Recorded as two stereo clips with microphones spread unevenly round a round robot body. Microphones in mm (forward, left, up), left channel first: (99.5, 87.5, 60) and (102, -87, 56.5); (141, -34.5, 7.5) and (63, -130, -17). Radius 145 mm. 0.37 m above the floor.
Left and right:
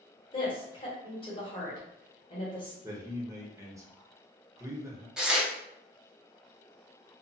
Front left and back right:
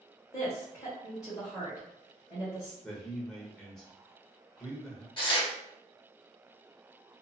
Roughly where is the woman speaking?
Behind left.